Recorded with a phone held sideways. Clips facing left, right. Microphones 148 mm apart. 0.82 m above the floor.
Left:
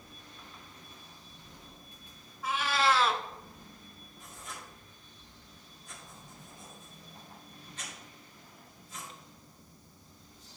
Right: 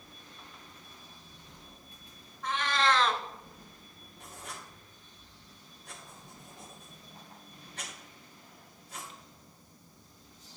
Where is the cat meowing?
5° left (ahead or behind), 0.8 m.